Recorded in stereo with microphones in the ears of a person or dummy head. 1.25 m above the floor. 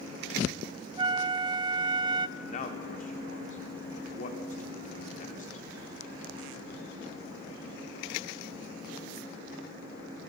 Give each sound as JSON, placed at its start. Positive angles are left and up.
{"t": 1.0, "sound": "a flute", "side_deg": -20, "distance_m": 0.6}
{"t": 2.4, "sound": "a man speaking", "side_deg": 45, "distance_m": 4.0}